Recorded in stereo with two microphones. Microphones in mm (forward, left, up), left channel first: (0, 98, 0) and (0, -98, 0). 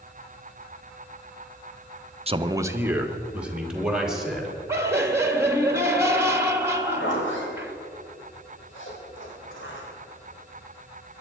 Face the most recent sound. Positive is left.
turn(degrees=80)